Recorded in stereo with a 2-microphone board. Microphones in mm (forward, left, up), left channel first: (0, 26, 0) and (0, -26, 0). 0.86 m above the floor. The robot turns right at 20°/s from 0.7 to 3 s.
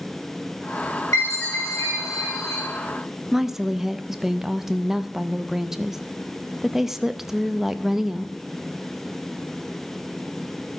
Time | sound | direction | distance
1.1 | a chime | 75° left | 6.5 m
3.3 | a woman speaking | 5° right (ahead or behind) | 0.5 m